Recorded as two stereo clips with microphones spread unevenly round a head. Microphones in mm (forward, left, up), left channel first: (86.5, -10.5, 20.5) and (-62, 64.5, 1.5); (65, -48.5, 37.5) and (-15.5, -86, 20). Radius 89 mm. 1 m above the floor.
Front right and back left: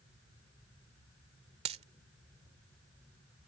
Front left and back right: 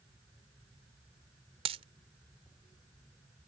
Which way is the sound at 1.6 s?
150° right.